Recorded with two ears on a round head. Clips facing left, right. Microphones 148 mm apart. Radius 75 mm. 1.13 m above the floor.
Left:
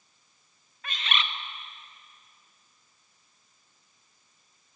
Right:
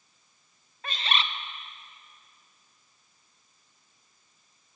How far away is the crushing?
No crushing in this recording.